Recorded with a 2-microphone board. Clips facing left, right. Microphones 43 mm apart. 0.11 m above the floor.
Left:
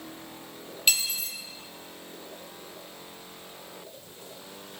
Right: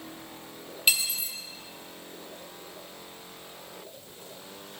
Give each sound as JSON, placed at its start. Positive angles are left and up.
{"t": 0.9, "sound": "cutlery clinking", "side_deg": -10, "distance_m": 1.6}